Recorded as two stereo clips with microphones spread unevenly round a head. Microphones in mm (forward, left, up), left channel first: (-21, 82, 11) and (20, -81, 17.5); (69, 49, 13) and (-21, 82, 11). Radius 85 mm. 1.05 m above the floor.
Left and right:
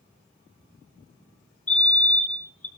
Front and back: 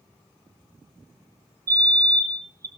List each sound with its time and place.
1.7 s a fire alarm: 175° left, 1.3 m